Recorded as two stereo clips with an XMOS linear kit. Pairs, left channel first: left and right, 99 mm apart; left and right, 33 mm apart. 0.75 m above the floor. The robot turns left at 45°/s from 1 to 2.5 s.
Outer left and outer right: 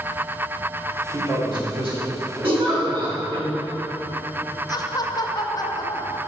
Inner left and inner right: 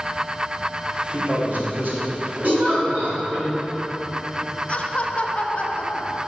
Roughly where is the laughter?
Left.